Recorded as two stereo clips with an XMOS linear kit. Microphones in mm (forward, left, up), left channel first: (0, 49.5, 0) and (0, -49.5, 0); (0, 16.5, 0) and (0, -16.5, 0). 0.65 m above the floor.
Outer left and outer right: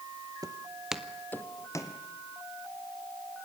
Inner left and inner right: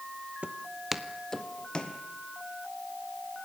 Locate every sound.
0.4 s footsteps: 40° right (ahead or behind), 1.0 m; by 2.0 s 40° left (ahead or behind), 1.9 m